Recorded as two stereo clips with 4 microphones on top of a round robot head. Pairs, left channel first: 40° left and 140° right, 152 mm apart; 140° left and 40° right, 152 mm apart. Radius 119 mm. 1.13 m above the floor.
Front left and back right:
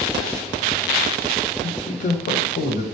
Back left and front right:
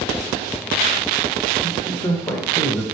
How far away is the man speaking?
About 0.9 m.